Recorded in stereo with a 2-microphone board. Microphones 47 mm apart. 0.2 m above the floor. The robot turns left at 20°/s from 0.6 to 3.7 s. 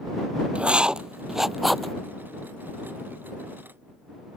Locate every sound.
0.6 s writing: 20° right (ahead or behind); by 1.9 s 5° left (ahead or behind)